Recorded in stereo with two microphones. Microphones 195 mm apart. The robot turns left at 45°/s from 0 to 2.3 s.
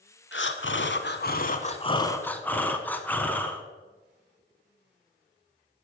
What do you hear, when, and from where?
0.3 s breathing: 100° left, 0.8 m; by 3.6 s 10° left, 0.8 m